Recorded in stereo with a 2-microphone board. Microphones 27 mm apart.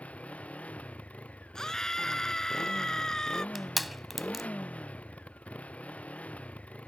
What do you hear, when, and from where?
0.0 s a motorcycle: 65° left (ahead or behind)
1.6 s a scream: 25° left (ahead or behind)
3.5 s crushing: centre (ahead or behind)